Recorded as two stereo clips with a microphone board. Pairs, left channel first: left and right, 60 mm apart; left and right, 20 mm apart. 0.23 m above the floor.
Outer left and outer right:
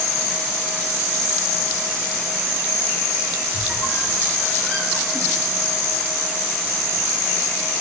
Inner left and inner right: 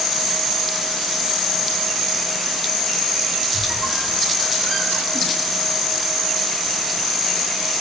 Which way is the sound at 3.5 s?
25° left (ahead or behind).